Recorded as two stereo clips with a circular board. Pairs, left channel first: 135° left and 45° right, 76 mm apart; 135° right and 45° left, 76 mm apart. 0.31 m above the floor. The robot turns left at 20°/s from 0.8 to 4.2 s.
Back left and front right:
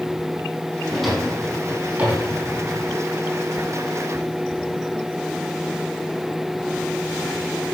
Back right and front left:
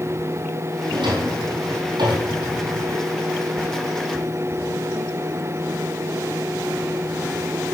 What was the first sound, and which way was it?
A drawer, 50° left.